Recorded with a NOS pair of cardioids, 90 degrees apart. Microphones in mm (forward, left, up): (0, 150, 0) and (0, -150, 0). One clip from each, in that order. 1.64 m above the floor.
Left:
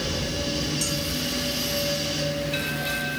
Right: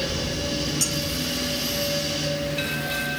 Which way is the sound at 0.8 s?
60° right.